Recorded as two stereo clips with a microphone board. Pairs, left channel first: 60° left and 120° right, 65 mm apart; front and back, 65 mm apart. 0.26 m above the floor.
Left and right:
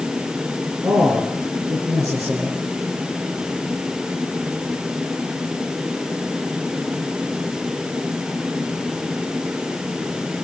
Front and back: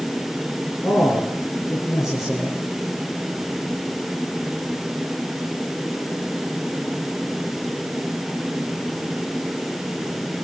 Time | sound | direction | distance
0.8 | a man speaking | 100° right | 4 m